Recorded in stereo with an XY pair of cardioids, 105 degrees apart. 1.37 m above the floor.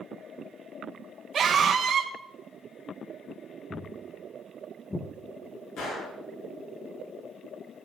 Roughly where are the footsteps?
Ahead left.